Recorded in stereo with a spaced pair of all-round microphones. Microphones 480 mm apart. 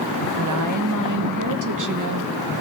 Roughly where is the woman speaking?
Right.